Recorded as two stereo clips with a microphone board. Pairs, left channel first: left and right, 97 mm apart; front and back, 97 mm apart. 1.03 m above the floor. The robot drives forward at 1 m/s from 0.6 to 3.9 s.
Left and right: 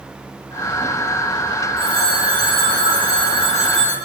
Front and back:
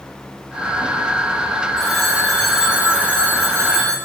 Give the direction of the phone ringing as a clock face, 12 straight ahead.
3 o'clock.